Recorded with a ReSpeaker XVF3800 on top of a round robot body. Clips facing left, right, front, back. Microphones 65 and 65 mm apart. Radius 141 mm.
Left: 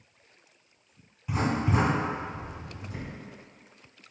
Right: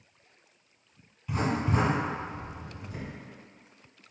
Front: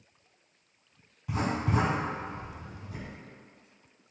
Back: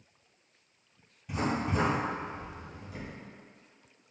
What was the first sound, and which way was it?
Writing, 20° left.